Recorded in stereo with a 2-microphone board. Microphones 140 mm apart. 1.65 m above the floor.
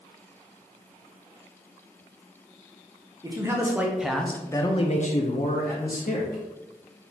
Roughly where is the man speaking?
Right.